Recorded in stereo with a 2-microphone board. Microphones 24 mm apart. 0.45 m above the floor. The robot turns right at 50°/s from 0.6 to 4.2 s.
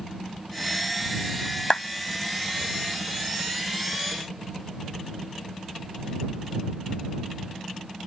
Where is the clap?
40° left (ahead or behind); by 1.9 s 45° left (ahead or behind).